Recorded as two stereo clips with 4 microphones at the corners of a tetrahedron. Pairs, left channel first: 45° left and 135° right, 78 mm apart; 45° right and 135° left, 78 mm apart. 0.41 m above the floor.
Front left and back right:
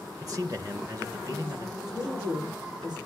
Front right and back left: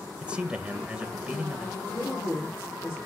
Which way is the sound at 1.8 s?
110° right.